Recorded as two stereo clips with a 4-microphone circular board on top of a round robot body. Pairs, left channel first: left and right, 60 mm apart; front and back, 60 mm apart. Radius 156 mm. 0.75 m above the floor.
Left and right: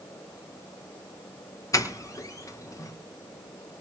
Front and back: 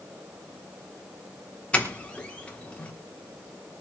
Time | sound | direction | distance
1.7 | a doorbell | 70° left | 3.5 m